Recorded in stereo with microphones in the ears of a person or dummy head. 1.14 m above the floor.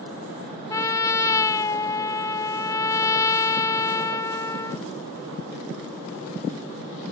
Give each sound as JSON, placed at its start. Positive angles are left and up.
{"t": 0.7, "sound": "a trumpet", "side_deg": 20}